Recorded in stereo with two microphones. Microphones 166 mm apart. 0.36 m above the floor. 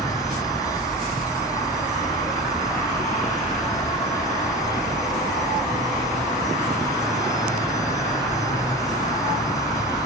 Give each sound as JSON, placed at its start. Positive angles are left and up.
{"t": 0.0, "sound": "an insect", "side_deg": 20, "distance_m": 0.9}